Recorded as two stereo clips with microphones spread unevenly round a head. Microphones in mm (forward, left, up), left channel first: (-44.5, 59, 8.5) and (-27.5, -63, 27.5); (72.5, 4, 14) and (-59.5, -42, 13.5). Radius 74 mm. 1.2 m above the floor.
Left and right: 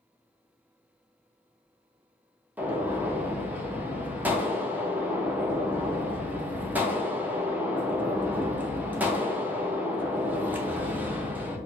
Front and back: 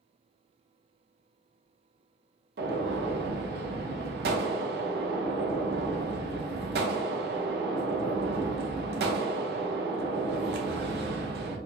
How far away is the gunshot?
About 0.8 m.